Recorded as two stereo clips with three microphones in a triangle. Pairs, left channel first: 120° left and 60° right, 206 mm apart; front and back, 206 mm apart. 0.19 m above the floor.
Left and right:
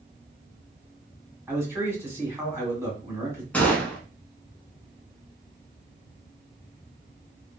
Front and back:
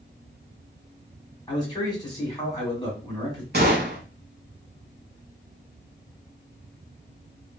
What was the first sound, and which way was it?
A man speaking, 5° right.